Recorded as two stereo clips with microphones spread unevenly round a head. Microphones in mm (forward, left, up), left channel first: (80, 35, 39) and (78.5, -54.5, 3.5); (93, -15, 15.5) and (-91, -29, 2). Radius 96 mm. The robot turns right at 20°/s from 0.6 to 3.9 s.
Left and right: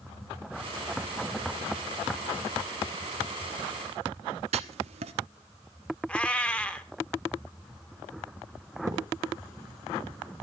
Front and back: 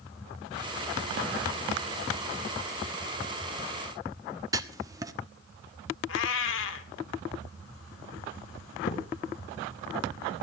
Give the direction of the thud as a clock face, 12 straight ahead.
1 o'clock.